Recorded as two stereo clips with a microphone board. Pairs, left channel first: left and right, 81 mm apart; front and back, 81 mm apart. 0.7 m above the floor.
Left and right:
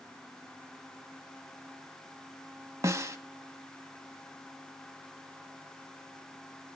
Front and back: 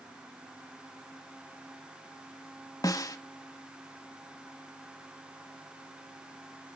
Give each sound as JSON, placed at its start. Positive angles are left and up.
{"t": 2.8, "sound": "a snare drum", "azimuth_deg": -40, "distance_m": 1.2}